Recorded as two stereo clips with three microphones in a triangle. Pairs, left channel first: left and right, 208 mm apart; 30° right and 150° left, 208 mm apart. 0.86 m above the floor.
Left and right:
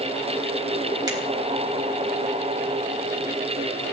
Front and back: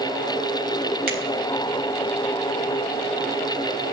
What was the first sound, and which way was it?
A finger snap, 160° right.